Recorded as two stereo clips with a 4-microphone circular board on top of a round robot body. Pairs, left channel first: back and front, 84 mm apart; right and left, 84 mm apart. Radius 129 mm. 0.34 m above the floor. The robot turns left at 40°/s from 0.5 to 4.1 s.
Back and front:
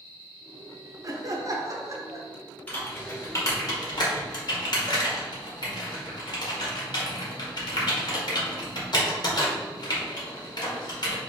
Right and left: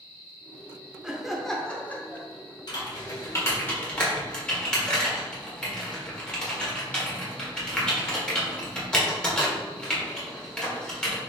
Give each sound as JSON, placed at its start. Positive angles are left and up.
{"t": 1.0, "sound": "laughter", "azimuth_deg": 10, "distance_m": 1.0}
{"t": 2.7, "sound": "typing on a keyboard", "azimuth_deg": -110, "distance_m": 1.8}